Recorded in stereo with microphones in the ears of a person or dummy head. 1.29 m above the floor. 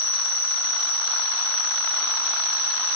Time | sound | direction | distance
0.0 | an insect | 15° left (ahead or behind) | 1.6 m